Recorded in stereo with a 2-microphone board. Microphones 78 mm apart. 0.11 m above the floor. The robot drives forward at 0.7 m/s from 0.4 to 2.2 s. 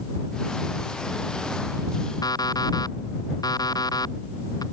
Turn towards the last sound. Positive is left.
turn(degrees=55)  # may be behind; listen again after turning